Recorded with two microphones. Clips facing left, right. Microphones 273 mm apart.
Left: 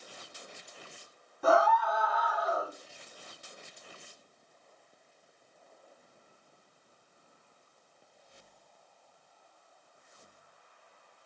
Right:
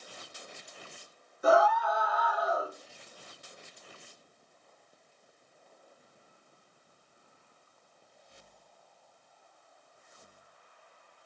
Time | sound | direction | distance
1.4 | a scream | 65° left (ahead or behind) | 3 m